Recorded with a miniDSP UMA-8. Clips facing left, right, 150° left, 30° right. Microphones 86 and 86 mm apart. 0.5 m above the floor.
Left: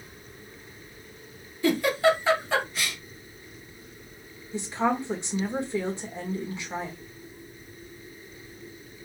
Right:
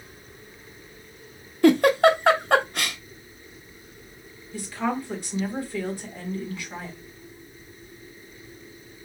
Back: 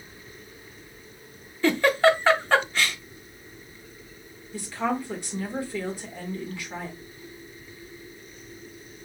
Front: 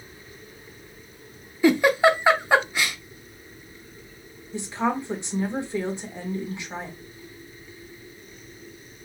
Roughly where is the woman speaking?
Ahead left.